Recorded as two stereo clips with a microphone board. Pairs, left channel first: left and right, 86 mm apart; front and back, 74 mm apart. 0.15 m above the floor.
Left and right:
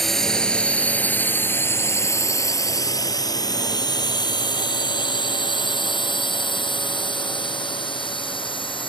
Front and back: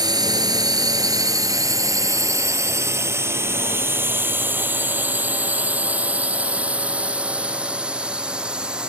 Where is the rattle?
I don't hear a rattle.